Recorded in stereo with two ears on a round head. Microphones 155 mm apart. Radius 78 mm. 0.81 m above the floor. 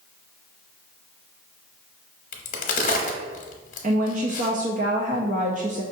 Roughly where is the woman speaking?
Right.